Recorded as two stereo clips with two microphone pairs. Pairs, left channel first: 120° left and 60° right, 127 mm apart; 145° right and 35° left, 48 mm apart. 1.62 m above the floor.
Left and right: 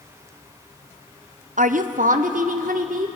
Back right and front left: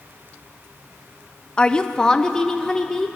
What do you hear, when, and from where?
1.6 s a woman speaking: 75° right, 0.8 m; by 3.1 s 65° right, 1.9 m